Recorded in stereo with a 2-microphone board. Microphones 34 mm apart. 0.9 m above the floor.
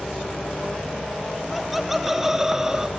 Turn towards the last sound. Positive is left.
turn(degrees=-15)  # may be behind; listen again after turning